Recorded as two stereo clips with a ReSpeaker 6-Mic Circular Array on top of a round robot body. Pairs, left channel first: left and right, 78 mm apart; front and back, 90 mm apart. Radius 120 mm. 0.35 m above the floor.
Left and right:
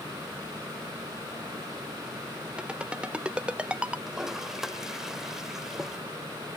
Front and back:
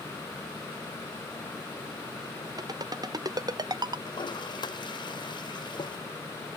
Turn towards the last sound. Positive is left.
turn(degrees=-5)